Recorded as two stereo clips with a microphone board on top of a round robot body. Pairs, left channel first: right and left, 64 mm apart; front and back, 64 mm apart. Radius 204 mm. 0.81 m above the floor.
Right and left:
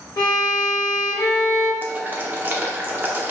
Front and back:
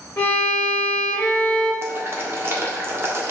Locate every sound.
0.2 s a violin: 55° right, 0.9 m
1.8 s boiling: 145° left, 1.4 m